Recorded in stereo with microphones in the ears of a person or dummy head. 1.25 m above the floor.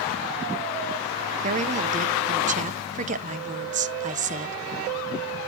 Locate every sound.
1.4 s a woman speaking: 45° right (ahead or behind), 0.8 m